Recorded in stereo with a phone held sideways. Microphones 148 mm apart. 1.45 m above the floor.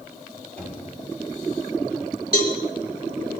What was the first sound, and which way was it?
Knocking, 5° left (ahead or behind).